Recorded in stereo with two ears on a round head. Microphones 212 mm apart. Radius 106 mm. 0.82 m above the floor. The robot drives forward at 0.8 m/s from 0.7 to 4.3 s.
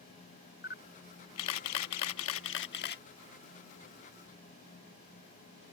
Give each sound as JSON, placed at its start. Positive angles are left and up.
{"t": 0.6, "sound": "a camera shutter", "side_deg": 45}